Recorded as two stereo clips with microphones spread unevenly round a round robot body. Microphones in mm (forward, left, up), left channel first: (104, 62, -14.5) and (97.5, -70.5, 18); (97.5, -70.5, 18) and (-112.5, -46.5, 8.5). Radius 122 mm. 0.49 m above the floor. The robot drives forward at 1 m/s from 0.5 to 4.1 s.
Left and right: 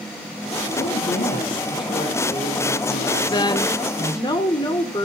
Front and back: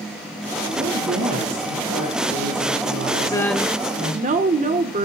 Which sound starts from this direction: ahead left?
A woman speaking, at 3.3 s.